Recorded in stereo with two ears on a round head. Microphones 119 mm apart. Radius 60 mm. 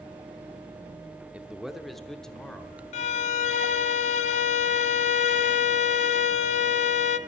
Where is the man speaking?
10° right (ahead or behind), 0.7 m; by 2.8 s 10° left (ahead or behind), 1.5 m.